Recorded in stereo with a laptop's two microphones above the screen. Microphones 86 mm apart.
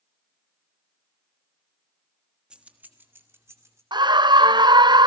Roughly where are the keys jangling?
Centre.